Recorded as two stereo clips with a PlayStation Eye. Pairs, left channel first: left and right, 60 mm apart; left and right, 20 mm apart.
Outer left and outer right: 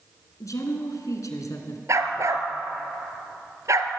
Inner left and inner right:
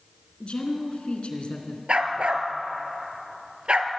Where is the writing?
I don't hear writing.